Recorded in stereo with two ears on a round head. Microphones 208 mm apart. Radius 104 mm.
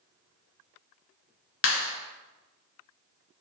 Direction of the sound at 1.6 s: 60° left (ahead or behind).